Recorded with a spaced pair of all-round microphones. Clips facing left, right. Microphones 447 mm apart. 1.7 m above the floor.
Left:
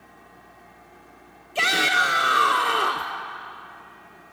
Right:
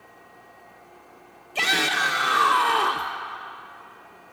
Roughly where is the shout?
Centre.